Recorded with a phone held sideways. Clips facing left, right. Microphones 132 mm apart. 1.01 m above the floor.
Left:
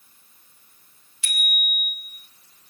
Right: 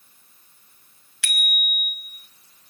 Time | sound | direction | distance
1.2 | a bicycle bell | 85° right | 4.5 m